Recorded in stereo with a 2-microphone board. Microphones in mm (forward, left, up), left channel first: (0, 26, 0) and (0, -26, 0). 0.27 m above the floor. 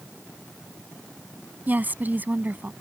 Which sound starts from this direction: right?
A woman speaking, at 1.7 s.